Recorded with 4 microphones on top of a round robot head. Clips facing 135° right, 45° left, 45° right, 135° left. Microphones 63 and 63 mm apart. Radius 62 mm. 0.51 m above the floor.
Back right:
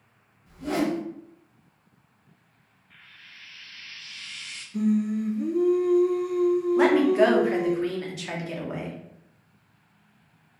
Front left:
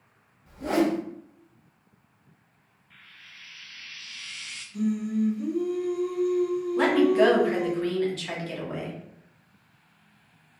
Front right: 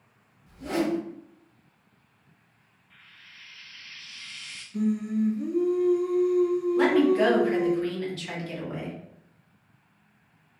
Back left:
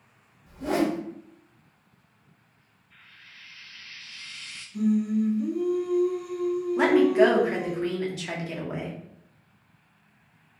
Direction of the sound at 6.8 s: 170° left.